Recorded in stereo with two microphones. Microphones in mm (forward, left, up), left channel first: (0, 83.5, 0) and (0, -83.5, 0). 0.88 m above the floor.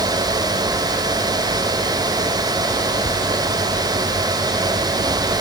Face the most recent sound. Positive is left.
No sound to turn to.